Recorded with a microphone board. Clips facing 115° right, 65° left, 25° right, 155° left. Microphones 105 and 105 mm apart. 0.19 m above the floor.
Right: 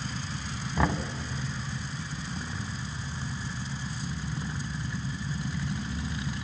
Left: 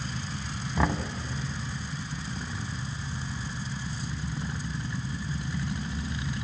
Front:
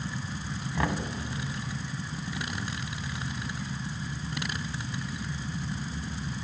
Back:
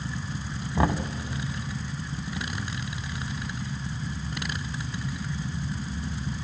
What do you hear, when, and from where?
0.8 s knocking: 155° left, 0.8 m